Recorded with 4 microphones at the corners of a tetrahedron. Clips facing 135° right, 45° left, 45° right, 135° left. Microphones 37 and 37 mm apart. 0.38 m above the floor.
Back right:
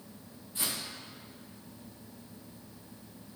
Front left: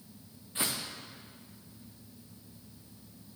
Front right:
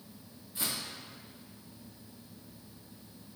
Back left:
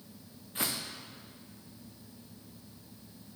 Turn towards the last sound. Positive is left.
turn(degrees=100)